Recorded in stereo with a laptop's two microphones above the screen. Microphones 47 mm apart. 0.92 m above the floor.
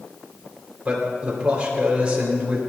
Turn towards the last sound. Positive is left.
turn(degrees=-25)  # may be behind; listen again after turning